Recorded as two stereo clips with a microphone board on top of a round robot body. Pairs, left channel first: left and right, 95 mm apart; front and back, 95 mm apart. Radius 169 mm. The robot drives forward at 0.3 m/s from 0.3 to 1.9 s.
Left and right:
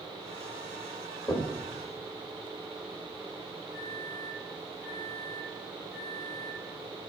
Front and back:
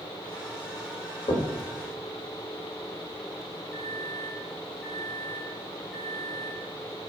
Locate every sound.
1.3 s knocking: 40° left, 1.3 m; by 1.5 s 45° left, 1.3 m
3.7 s a microwave: 90° left, 1.9 m